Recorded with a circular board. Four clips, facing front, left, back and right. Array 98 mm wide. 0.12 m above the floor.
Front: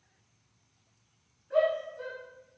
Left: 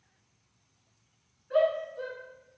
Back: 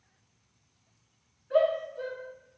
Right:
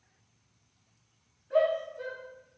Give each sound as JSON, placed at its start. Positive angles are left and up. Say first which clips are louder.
{"t": 1.5, "sound": "a shout", "louder": "even, back 2 dB", "azimuth_deg": 130, "distance_m": 1.0}